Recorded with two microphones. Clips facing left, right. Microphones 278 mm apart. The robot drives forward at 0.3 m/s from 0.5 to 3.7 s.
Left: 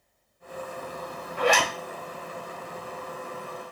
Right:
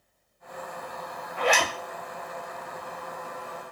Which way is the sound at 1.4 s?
45° left (ahead or behind).